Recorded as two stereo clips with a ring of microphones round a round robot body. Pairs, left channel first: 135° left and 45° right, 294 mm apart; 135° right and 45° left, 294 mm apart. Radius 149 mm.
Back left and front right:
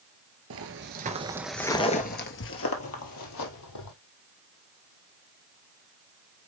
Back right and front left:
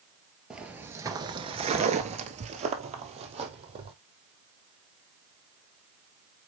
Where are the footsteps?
40° right, 1.1 m; by 3.9 s 115° left, 2 m.